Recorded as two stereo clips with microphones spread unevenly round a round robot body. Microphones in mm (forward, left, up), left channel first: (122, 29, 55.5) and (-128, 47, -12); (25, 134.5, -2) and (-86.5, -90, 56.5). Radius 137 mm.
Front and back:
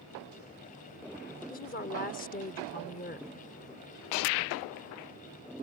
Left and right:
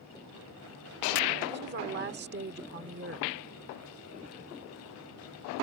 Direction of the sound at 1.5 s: 65° right.